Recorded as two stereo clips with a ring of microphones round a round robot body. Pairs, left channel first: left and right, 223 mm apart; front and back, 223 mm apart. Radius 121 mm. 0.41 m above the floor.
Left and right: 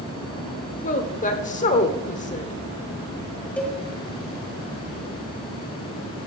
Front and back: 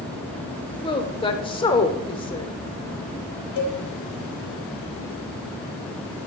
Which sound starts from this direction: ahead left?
A woman speaking, at 0.8 s.